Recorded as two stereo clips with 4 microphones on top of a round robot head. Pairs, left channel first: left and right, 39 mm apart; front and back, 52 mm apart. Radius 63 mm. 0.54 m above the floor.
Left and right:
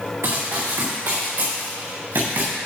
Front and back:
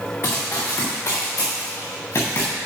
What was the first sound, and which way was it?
Running footsteps, 65° right.